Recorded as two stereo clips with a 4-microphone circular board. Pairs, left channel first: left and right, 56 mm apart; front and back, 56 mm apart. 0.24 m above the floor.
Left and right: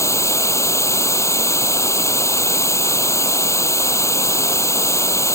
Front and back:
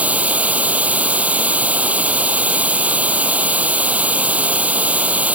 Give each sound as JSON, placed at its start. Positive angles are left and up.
{"t": 0.0, "sound": "running water", "azimuth_deg": 115}